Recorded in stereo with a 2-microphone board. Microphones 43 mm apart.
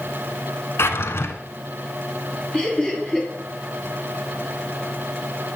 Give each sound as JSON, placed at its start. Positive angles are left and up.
{"t": 0.8, "sound": "a drawer", "side_deg": 75, "distance_m": 1.4}
{"t": 2.5, "sound": "laughter", "side_deg": 30, "distance_m": 3.0}